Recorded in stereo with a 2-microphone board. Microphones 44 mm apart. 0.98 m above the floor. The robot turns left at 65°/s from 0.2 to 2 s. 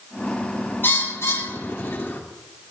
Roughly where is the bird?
Left.